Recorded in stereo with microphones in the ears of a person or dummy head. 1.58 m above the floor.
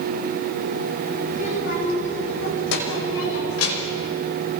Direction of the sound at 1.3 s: 60° left (ahead or behind).